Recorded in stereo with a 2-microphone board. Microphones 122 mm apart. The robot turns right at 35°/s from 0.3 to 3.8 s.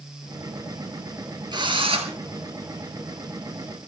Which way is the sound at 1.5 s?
35° right (ahead or behind).